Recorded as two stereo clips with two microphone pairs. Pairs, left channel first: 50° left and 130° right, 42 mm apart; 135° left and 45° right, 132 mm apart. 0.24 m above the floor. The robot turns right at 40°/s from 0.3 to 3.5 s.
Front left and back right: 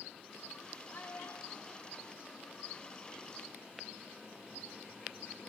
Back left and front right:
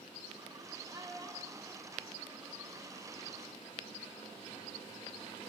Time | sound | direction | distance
0.9 | a child speaking | 5° left | 4.5 m